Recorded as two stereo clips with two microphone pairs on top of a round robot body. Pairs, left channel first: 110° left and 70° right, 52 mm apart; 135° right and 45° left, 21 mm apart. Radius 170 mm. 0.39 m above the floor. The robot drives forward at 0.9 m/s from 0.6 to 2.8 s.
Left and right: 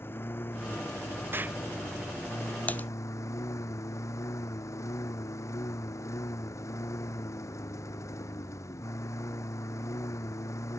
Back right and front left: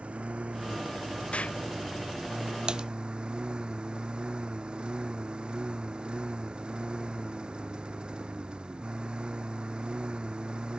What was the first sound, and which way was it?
A lawn mower, 65° left.